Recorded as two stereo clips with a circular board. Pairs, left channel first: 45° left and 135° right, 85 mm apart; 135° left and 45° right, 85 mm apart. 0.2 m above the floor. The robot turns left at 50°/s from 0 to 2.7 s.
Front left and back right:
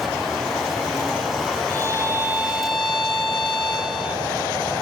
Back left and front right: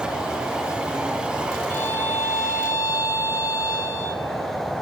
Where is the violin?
170° right, 1.2 m; by 4.2 s 140° left, 1.2 m.